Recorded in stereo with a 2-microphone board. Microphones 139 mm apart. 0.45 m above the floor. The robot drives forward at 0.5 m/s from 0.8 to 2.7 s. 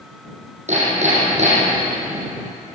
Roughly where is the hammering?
Right.